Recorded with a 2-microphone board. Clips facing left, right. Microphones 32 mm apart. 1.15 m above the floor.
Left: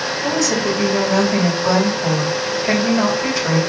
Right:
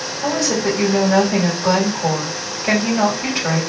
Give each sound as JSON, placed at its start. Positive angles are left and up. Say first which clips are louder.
{"t": 0.2, "sound": "a woman speaking", "louder": "right 1 dB", "side_deg": -30, "distance_m": 3.5}